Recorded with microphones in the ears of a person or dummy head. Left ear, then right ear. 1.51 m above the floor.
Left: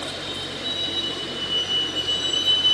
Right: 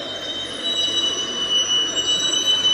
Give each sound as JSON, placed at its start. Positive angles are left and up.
{"t": 0.0, "sound": "a vehicle", "side_deg": -45}